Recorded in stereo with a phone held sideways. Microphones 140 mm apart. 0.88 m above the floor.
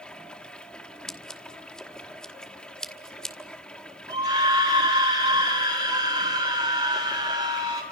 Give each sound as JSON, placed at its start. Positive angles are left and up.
{"t": 0.0, "sound": "running water", "side_deg": 5, "distance_m": 1.5}
{"t": 1.1, "sound": "scissors", "side_deg": 5, "distance_m": 1.9}
{"t": 4.1, "sound": "a scream", "side_deg": -45, "distance_m": 4.0}